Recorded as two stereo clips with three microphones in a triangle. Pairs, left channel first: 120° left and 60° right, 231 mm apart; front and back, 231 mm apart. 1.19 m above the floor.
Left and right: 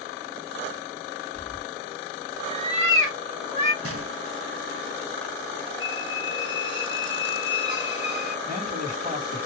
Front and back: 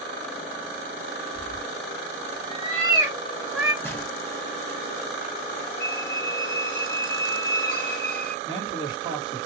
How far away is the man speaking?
About 2.0 m.